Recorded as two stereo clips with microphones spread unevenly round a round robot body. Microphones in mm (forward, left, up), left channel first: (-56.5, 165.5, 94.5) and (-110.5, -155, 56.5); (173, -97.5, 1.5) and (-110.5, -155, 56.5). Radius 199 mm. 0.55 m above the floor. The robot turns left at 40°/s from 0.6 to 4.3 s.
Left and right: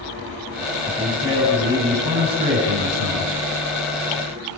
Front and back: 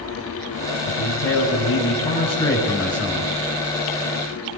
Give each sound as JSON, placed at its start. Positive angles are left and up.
{"t": 0.9, "sound": "a man speaking", "azimuth_deg": 0, "distance_m": 7.5}